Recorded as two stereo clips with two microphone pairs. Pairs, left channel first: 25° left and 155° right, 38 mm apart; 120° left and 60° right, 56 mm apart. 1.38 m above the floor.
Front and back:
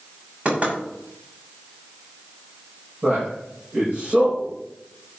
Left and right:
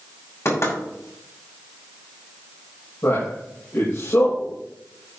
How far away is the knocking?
About 6.5 m.